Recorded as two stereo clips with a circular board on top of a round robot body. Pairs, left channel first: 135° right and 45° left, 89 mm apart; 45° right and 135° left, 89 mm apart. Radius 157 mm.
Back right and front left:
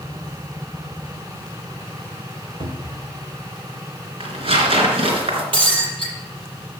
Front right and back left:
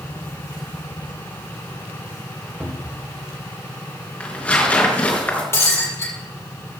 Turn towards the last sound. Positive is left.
turn(degrees=15)